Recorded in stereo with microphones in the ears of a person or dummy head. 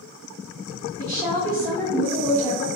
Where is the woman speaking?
5° left (ahead or behind), 0.9 m.